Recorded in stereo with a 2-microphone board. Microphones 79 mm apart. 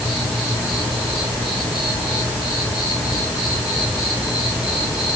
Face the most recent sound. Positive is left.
turn(degrees=-10)  # may be behind; listen again after turning